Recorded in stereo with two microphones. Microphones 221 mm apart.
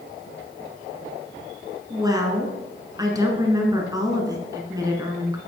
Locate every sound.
1.9 s a woman speaking: 15° right (ahead or behind), 1.4 m